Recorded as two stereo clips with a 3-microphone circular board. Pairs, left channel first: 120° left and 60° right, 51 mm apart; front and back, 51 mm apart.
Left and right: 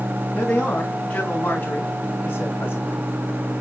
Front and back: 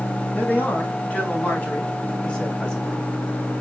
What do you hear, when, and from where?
0.3 s a man speaking: 55° left, 4.5 m; by 3.1 s 90° left, 2.5 m